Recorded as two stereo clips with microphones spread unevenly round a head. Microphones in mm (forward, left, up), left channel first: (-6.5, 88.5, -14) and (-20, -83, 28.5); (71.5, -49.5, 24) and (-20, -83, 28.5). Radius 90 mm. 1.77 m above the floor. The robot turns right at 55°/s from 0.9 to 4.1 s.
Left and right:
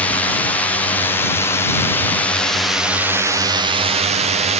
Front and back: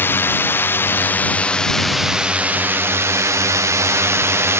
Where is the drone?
50° left; by 4.6 s 135° right.